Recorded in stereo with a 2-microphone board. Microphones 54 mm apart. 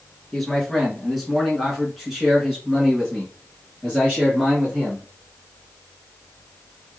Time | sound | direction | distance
0.3 | a man speaking | 5° left (ahead or behind) | 1.8 m